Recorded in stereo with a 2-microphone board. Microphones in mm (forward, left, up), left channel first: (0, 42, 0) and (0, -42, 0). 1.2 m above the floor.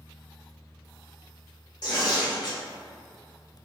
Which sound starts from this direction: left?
Tearing paper, at 1.8 s.